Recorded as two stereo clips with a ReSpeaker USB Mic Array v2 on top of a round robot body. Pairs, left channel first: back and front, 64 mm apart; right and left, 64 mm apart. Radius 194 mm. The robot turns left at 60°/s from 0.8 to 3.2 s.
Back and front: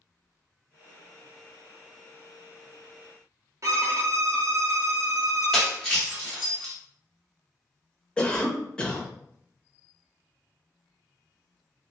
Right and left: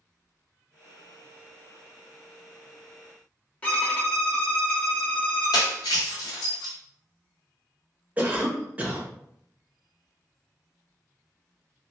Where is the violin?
25° right, 1.0 m.